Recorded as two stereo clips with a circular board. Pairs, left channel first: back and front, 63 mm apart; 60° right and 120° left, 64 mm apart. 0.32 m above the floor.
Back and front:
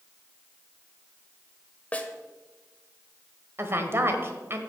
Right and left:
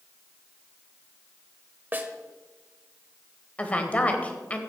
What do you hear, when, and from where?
1.9 s a snare drum: 140° left, 0.9 m
3.6 s a woman speaking: 5° right, 1.3 m